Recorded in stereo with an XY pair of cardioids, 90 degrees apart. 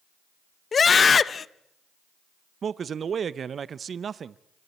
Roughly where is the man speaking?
Ahead right.